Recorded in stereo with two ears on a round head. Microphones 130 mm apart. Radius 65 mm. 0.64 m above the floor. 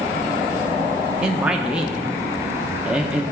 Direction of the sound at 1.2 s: 5° right (ahead or behind).